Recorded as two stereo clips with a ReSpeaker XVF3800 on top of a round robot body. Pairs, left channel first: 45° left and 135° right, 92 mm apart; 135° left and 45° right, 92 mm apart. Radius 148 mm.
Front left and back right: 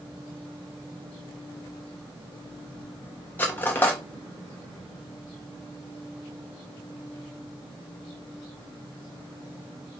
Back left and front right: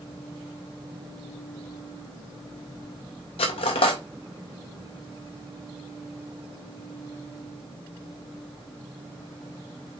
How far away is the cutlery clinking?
About 0.5 m.